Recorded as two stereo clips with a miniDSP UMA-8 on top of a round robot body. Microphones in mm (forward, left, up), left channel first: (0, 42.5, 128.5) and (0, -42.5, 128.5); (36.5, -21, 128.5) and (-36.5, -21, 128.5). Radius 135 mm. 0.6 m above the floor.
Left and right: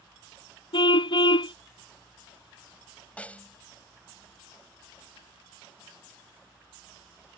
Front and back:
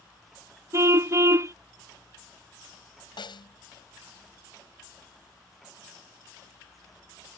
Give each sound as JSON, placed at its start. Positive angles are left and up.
{"t": 0.7, "sound": "a car horn", "azimuth_deg": 125}
{"t": 3.2, "sound": "a snare drum", "azimuth_deg": 15}